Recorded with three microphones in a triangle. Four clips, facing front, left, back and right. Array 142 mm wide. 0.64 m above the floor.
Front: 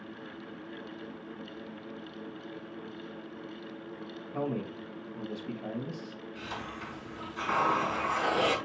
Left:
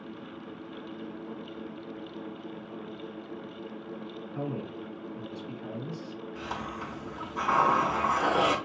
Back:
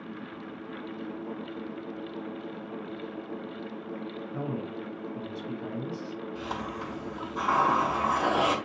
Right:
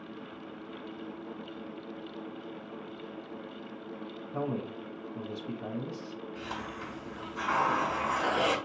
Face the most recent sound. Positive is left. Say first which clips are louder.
# left 4 dB, back 4 dB
turn(degrees=145)